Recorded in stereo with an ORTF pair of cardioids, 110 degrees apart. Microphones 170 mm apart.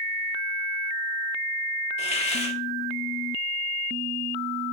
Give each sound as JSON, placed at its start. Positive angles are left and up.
{"t": 2.0, "sound": "a hiss", "azimuth_deg": 40, "distance_m": 1.4}